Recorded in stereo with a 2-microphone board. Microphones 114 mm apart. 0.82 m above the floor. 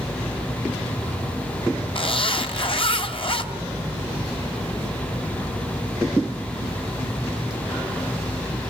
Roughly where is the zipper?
Left.